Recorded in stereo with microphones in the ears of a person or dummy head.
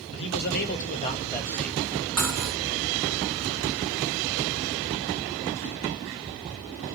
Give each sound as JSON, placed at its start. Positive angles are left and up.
{"t": 0.1, "sound": "a man speaking", "side_deg": 65, "distance_m": 1.3}
{"t": 2.2, "sound": "cutlery clinking", "side_deg": -5, "distance_m": 1.4}